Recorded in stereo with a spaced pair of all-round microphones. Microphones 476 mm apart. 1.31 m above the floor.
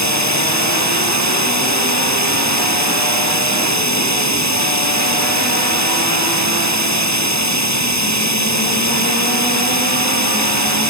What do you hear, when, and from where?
0.0 s running water: 35° right (ahead or behind)